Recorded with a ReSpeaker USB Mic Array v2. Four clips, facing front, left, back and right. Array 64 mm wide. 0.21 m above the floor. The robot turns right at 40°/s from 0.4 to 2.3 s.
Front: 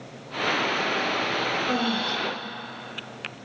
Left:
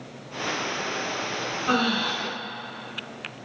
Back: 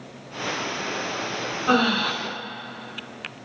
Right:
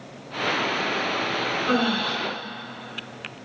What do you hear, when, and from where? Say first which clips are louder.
1.7 s breathing: left 1 dB, back 5 dB; 165° left, 0.6 m; by 2.1 s straight behind, 0.6 m